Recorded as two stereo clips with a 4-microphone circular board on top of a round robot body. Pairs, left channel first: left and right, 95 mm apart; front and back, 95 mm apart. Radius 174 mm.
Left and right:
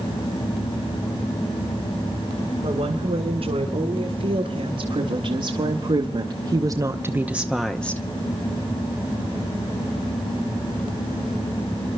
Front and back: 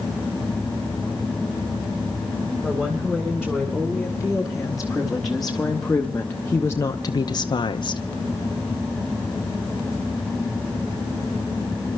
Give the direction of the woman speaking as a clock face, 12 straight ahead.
3 o'clock.